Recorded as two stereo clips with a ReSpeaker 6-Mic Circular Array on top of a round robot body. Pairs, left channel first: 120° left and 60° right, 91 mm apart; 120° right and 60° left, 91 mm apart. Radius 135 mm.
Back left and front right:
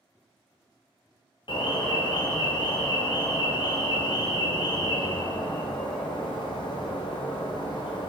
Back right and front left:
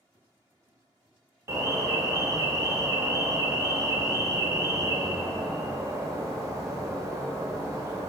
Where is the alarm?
110° left, 0.9 m.